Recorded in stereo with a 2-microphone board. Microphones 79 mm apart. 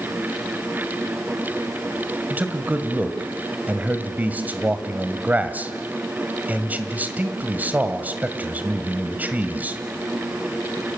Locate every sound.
2.3 s a man speaking: 20° right (ahead or behind), 1.9 m